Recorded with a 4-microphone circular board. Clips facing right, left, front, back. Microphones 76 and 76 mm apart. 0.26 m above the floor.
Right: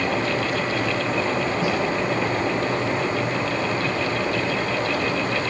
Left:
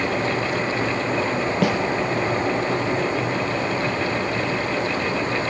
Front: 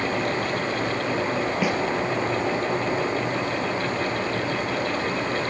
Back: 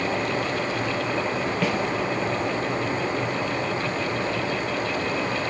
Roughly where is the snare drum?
Left.